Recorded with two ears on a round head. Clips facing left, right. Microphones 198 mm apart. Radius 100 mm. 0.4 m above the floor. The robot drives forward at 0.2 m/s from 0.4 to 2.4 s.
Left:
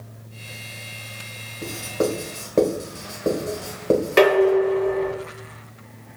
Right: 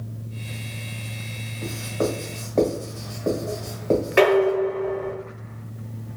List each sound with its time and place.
1.6 s writing: 50° left (ahead or behind), 1.3 m
4.2 s dishes clattering: 50° left (ahead or behind), 2 m